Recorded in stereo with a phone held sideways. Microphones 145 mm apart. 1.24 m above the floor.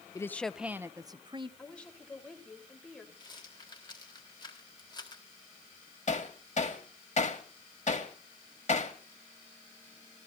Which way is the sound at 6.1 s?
55° left (ahead or behind).